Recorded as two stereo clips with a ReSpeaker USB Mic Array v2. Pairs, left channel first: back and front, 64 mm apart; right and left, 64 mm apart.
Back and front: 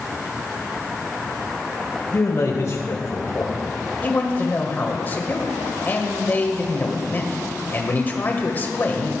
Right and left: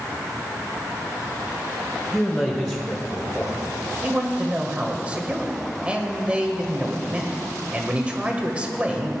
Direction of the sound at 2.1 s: 160° right.